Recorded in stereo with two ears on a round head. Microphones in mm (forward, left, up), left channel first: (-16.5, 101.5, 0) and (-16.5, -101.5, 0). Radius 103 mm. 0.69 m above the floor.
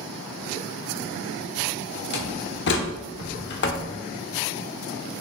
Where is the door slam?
50° left (ahead or behind), 1.1 m.